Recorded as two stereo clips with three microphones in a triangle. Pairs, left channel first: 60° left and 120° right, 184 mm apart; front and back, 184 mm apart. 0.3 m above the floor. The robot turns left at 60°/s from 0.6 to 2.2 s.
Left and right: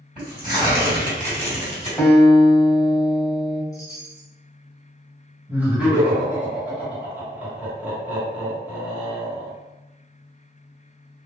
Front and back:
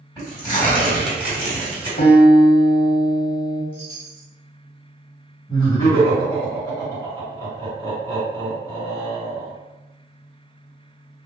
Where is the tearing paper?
65° right, 1.9 m; by 1.9 s 145° right, 1.9 m.